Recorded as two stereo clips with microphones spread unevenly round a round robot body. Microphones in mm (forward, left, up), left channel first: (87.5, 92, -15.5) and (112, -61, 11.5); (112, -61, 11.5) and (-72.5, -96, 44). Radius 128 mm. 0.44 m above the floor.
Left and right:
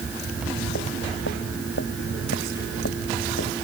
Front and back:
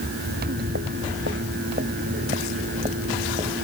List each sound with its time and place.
0.3 s footsteps: 145° left; by 3.5 s 120° left